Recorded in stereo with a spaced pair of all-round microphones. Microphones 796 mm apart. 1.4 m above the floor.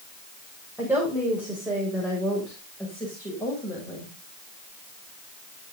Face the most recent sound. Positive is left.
turn(degrees=5)  # may be behind; listen again after turning